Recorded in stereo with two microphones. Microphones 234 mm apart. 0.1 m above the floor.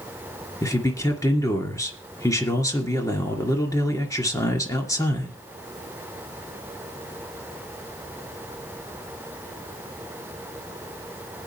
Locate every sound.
0.6 s a man speaking: 15° left (ahead or behind), 2 m